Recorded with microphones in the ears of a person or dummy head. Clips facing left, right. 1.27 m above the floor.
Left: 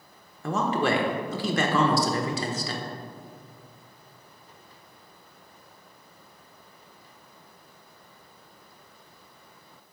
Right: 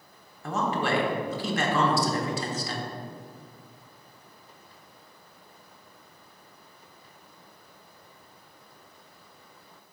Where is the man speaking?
65° left (ahead or behind), 1.2 m.